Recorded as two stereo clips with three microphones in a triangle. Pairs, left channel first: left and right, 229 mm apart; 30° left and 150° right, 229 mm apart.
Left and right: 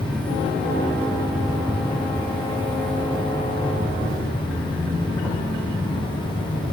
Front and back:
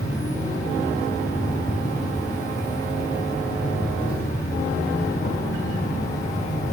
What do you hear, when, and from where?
0.0 s an insect: 5° left, 2.5 m